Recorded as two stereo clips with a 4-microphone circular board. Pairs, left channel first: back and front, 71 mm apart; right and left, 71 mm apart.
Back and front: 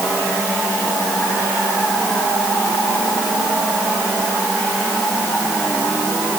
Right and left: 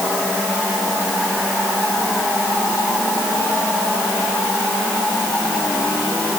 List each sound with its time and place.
Only background noise.